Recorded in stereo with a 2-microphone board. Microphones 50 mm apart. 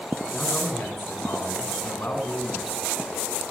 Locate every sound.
0.3 s a man speaking: 50° left (ahead or behind), 3.5 m